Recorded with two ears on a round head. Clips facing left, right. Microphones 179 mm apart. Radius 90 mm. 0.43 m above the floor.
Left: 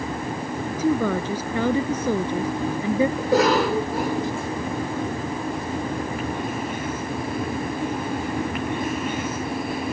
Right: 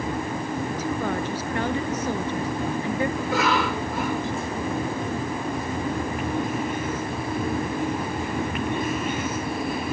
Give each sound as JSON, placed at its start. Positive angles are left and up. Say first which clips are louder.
{"t": 0.7, "sound": "a woman speaking", "louder": "left 9 dB", "side_deg": 65}
{"t": 3.2, "sound": "a cough", "louder": "left 5 dB", "side_deg": 30}